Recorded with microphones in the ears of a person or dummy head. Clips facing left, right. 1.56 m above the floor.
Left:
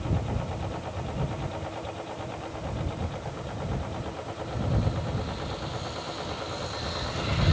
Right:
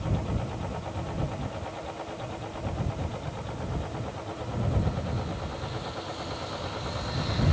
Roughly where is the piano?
I don't hear a piano.